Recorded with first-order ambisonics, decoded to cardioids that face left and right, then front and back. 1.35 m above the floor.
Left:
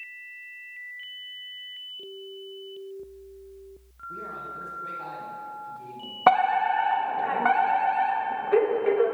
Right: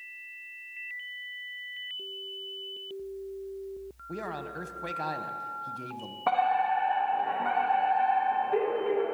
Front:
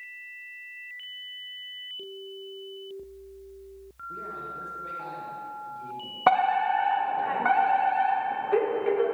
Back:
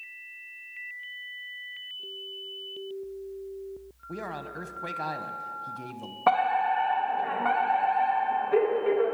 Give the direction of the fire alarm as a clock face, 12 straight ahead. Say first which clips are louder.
Left 5 dB, front 2 dB; 10 o'clock.